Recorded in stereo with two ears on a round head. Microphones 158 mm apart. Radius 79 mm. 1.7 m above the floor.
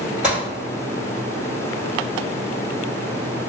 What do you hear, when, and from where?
0.2 s a gunshot: 5° right (ahead or behind), 1.8 m